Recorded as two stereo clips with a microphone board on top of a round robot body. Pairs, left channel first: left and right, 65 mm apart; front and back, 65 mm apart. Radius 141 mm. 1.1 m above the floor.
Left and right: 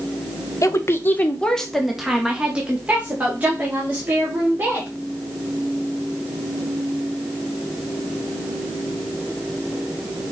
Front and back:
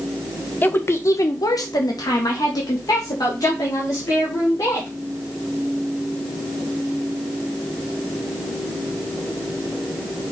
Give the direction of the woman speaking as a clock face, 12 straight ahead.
10 o'clock.